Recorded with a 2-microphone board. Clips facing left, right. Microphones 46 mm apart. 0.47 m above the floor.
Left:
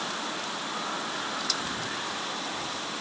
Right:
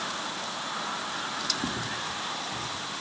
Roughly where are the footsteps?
Right.